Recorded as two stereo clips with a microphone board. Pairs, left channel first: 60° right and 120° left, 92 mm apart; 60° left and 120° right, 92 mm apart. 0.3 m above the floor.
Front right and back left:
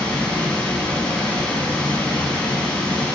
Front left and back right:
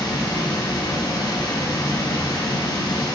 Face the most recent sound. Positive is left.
turn(degrees=20)